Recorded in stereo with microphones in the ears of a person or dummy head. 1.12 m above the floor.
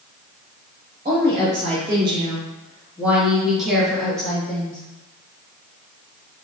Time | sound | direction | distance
1.1 | a woman speaking | 25° right (ahead or behind) | 0.9 m